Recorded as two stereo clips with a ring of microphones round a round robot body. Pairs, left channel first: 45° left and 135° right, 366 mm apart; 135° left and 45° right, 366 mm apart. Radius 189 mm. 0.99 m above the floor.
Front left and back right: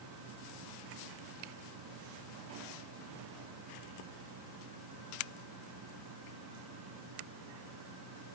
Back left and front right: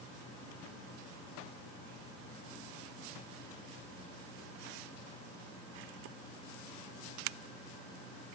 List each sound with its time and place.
Only background noise.